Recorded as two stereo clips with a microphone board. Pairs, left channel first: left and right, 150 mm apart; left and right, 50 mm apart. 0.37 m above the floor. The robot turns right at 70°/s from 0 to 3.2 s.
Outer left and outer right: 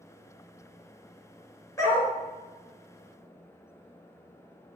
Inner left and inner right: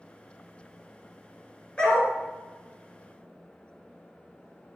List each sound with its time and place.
1.8 s a dog barking: 20° left (ahead or behind), 2.5 m; by 2.1 s centre (ahead or behind), 2.5 m